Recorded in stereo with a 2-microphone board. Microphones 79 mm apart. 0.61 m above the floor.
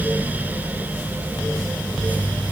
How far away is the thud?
No thud in this recording.